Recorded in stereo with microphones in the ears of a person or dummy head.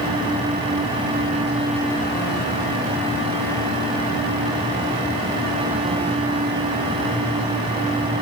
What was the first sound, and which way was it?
Only background noise.